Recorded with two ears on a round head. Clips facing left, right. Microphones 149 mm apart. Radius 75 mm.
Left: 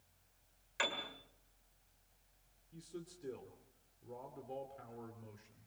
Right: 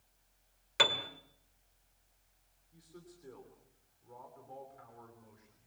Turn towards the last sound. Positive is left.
turn(degrees=35)  # may be behind; listen again after turning